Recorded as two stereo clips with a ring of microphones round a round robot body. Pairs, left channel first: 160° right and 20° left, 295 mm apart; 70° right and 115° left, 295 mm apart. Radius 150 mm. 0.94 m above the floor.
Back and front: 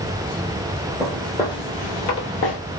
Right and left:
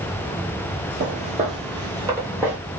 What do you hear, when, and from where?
1.0 s footsteps: 110° left, 1.0 m; by 2.6 s 165° right, 1.2 m